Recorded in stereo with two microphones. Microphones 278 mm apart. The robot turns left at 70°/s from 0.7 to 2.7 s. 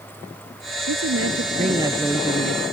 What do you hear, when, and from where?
0.9 s a woman speaking: 100° right; by 2.6 s 140° left